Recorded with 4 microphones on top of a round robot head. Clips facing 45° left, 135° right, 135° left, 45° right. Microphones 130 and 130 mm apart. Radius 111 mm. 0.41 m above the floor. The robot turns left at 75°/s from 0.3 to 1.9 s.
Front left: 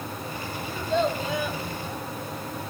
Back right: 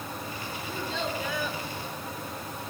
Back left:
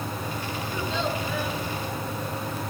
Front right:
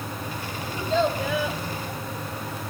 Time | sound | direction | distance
0.7 | a child speaking | 25° left | 1.6 m